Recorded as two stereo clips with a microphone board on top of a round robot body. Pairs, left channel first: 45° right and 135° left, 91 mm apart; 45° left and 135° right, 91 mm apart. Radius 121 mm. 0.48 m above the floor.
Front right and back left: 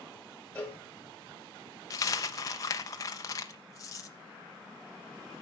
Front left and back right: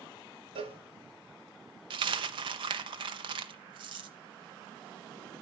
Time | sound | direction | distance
0.6 | a cowbell | 120° right | 1.2 m
1.9 | a dropped coin | 100° right | 0.5 m